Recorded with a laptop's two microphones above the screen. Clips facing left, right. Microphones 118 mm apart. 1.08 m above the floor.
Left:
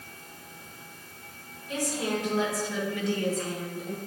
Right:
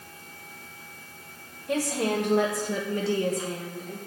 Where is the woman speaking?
70° right (ahead or behind), 1.8 m; by 4.0 s 20° left (ahead or behind), 1.0 m.